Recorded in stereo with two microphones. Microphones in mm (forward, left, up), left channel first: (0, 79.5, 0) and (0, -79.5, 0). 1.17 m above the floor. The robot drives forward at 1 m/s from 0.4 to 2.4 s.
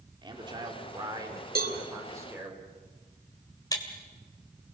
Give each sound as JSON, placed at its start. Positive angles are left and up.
{"t": 0.2, "sound": "a man speaking", "side_deg": -30, "distance_m": 3.0}
{"t": 1.6, "sound": "a cowbell", "side_deg": -75, "distance_m": 1.8}
{"t": 3.7, "sound": "breaking glass", "side_deg": 25, "distance_m": 2.5}